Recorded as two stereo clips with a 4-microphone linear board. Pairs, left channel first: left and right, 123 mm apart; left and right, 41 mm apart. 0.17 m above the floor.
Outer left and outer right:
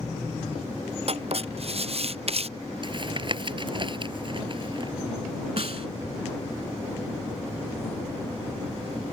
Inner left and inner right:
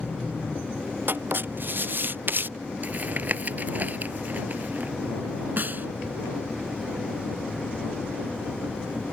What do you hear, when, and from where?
1.1 s writing: 55° right (ahead or behind)
2.8 s tapping: 40° right (ahead or behind)
5.6 s a snare drum: 55° right (ahead or behind)